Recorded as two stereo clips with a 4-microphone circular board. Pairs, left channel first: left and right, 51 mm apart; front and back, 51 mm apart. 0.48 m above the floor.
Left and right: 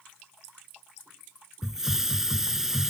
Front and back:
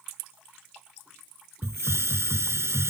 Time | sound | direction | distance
1.6 | a hiss | 170° right | ?